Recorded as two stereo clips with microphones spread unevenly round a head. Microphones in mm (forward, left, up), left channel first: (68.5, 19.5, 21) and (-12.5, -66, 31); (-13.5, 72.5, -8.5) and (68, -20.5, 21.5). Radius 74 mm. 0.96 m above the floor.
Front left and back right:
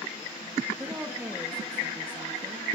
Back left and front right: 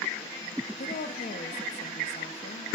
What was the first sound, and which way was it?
A woman speaking, 150° left.